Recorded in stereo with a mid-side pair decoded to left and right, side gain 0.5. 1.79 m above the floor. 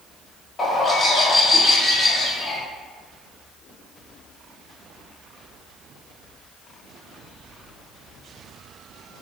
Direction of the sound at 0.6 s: 30° left.